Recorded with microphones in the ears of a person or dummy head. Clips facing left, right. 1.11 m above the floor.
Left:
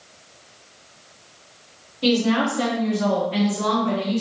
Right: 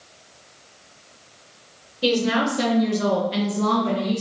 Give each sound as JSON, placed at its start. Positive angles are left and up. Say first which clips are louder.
{"t": 2.0, "sound": "a woman speaking", "louder": "left 1 dB", "side_deg": -15, "distance_m": 1.7}